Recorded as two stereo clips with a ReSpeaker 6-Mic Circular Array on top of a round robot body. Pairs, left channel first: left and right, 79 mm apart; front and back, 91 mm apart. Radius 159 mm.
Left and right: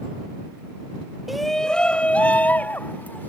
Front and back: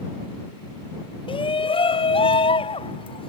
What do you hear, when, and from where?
1.3 s a shout: 5° right; by 3.3 s 20° left